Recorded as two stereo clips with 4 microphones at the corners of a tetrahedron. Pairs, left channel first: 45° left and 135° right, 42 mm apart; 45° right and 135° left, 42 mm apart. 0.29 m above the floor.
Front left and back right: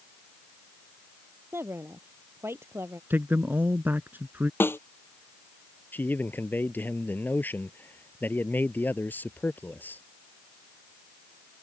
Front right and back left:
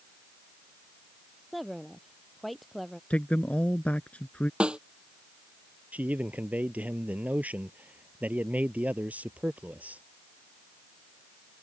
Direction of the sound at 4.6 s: 70° left.